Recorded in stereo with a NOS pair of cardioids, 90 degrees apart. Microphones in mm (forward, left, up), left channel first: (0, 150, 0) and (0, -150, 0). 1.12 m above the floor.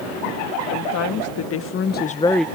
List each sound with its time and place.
0.7 s a woman speaking: 65° left; by 2.5 s 5° right